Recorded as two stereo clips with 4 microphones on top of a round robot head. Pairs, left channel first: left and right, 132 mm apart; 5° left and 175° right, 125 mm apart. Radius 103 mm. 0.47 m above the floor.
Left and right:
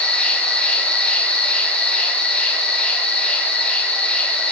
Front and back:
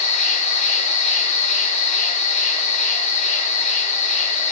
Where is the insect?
10° left, 1.4 m.